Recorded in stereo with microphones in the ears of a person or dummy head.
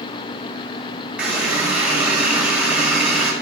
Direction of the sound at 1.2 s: 5° right (ahead or behind).